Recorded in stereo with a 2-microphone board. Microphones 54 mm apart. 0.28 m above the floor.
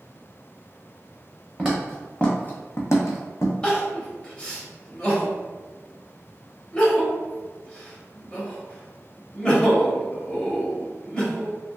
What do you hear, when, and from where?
1.6 s footsteps: centre (ahead or behind), 1.2 m; by 3.5 s 70° left (ahead or behind), 0.9 m
3.6 s crying: 20° left (ahead or behind), 0.8 m